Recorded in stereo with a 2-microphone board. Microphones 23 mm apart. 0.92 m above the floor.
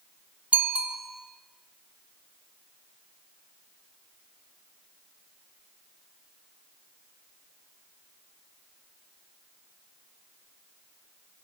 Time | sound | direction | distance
0.5 | a bicycle bell | 90° right | 2 m